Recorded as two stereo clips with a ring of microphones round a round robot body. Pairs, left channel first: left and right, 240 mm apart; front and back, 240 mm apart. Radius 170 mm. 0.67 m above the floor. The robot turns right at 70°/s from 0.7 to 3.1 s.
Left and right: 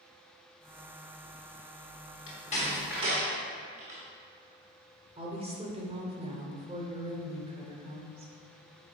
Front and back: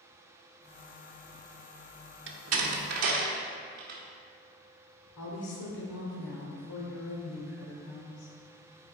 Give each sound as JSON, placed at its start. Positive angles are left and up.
{"t": 2.3, "sound": "a door slam", "azimuth_deg": 140, "distance_m": 1.2}
{"t": 5.2, "sound": "a woman speaking", "azimuth_deg": -25, "distance_m": 2.0}